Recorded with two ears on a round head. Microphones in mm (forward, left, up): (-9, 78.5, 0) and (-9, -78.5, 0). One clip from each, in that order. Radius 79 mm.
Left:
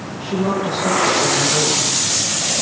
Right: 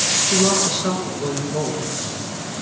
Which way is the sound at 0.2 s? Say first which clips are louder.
Left 3 dB; 50° right (ahead or behind).